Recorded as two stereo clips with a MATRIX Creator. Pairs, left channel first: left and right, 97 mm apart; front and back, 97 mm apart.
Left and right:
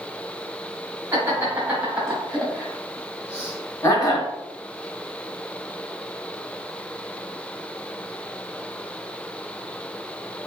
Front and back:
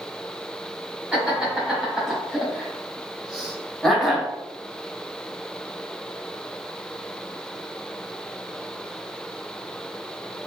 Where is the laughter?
105° right, 1.4 m; by 4.3 s 85° left, 1.6 m.